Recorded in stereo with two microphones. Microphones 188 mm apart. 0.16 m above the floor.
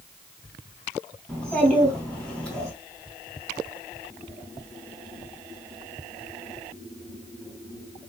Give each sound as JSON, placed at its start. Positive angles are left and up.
{"t": 1.3, "sound": "a child speaking", "side_deg": 5, "distance_m": 3.0}